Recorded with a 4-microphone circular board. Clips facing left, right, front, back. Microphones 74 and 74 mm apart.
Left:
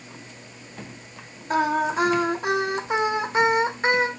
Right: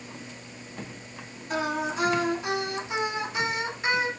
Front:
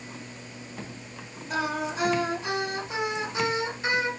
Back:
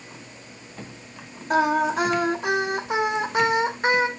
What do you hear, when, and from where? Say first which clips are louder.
1.5 s singing: left 7 dB, back 9 dB; 140° left, 1.0 m